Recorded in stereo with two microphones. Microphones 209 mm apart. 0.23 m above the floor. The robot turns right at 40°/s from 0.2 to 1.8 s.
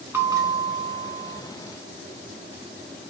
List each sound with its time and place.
0.1 s a bell: 165° right, 2.5 m; by 1.4 s 120° right, 2.5 m